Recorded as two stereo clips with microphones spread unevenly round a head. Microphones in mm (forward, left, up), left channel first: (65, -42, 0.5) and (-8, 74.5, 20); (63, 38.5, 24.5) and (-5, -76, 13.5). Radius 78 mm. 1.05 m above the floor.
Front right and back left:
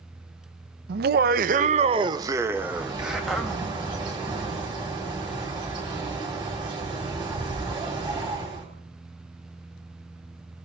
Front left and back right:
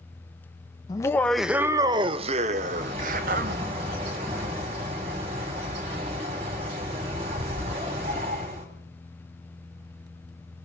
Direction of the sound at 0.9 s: 125° left.